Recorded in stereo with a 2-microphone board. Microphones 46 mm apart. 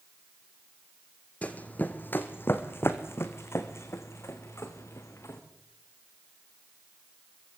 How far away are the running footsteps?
About 2 m.